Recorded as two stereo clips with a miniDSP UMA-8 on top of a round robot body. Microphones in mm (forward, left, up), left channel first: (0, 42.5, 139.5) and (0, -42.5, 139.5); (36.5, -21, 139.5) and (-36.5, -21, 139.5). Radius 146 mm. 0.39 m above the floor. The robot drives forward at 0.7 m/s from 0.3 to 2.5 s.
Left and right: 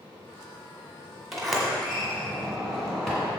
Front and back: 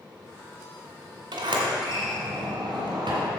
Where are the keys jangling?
I don't hear keys jangling.